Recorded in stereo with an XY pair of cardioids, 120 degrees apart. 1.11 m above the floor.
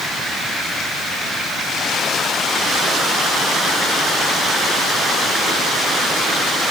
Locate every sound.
Only background noise.